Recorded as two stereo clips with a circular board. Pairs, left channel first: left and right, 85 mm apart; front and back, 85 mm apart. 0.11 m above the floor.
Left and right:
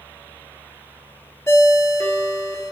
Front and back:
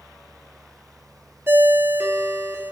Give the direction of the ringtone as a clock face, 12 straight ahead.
8 o'clock.